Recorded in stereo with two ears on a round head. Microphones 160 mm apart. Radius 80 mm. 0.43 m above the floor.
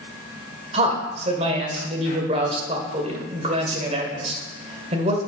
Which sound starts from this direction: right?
A man speaking, at 0.7 s.